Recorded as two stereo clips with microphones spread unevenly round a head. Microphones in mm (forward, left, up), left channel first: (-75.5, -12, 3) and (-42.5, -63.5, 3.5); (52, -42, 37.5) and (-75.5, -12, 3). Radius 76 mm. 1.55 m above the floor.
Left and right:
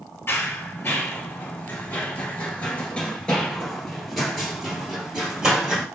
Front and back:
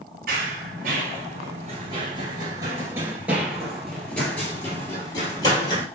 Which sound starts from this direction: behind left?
Running footsteps, at 0.3 s.